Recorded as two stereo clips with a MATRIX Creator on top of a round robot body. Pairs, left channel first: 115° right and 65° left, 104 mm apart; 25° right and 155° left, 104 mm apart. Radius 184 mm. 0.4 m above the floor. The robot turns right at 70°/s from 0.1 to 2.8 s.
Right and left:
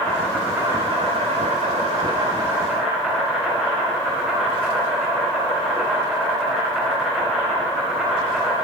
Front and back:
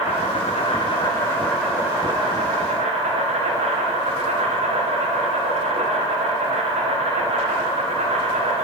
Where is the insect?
35° right, 1.5 m; by 8.6 s 155° left, 1.5 m.